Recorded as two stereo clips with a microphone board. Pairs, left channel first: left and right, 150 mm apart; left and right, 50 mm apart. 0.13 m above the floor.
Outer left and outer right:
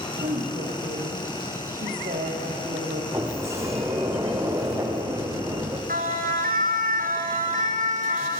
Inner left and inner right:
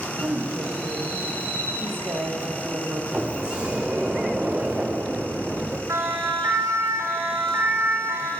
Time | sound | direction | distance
0.2 | a woman speaking | 65° right (ahead or behind) | 6 m
3.1 | a sliding door | 20° right (ahead or behind) | 4 m
5.9 | a siren | 75° right (ahead or behind) | 5.5 m